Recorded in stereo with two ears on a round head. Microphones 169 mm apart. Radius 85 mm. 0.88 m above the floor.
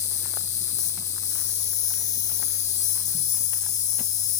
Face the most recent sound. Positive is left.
turn(degrees=40)  # may be behind; listen again after turning